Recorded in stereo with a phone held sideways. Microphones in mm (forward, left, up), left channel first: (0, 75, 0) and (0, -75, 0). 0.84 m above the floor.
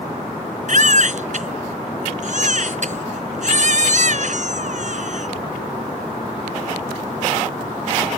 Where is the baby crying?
60° right (ahead or behind).